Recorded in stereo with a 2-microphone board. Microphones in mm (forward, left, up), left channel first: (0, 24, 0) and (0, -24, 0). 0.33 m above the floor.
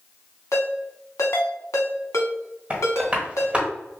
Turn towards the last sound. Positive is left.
turn(degrees=-25)  # may be behind; listen again after turning